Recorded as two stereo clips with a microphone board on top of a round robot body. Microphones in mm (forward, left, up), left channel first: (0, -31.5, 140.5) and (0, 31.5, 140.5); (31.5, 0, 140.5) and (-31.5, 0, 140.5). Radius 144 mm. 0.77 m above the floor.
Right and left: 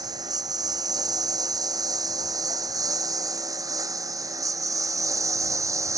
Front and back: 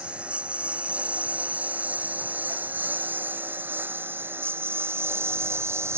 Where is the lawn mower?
105° left; by 6.0 s 130° left.